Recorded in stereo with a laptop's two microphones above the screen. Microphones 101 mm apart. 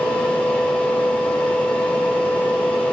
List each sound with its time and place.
0.0 s a fan: 15° left (ahead or behind), 3.5 m